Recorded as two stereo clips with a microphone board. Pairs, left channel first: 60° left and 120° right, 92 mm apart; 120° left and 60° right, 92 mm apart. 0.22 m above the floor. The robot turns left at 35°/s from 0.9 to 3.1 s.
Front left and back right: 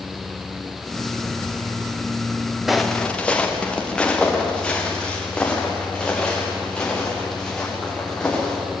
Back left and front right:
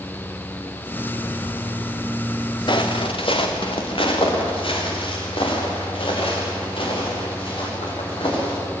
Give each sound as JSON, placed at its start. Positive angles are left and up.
{"t": 2.7, "sound": "footsteps", "azimuth_deg": 155, "distance_m": 2.0}